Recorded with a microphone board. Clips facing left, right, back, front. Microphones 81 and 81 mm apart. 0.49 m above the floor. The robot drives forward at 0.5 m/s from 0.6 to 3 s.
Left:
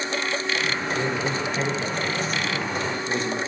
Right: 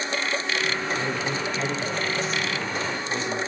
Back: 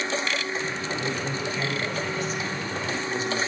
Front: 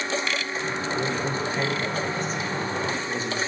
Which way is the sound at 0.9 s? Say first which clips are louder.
Left 2 dB, front 3 dB; 50° left.